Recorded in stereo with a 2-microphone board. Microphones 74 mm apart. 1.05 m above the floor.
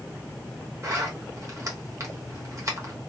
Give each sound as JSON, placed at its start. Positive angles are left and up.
{"t": 0.8, "sound": "a zipper", "side_deg": -45, "distance_m": 1.1}